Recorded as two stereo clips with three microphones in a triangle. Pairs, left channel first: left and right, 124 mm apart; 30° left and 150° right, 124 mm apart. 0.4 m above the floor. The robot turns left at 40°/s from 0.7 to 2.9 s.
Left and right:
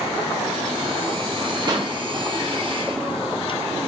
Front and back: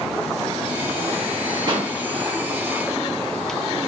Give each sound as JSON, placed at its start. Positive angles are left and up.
{"t": 1.7, "sound": "a pop", "azimuth_deg": -120, "distance_m": 1.1}